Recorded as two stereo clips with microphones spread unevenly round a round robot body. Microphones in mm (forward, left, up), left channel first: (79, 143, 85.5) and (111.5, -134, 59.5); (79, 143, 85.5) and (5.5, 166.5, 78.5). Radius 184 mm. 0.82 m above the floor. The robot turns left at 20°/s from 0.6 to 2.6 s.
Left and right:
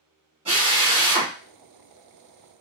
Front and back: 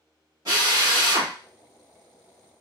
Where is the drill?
150° right, 1.7 m; by 1.3 s 165° right, 1.7 m.